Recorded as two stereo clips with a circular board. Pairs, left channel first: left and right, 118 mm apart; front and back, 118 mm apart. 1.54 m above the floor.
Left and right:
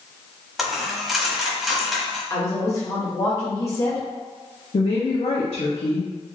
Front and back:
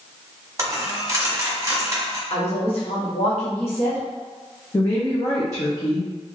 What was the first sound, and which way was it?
A dropped coin, 175° right.